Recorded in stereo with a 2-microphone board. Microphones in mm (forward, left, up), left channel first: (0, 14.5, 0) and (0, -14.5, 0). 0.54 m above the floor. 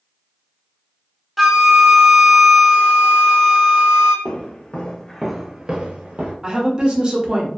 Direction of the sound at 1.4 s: 5° right (ahead or behind).